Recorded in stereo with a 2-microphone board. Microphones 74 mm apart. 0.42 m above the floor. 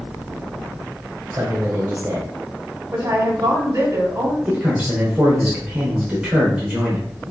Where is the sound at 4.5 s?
15° right (ahead or behind), 1.1 m.